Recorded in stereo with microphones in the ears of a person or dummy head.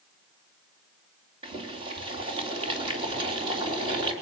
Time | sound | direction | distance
1.4 | boiling | 30° right (ahead or behind) | 3.5 m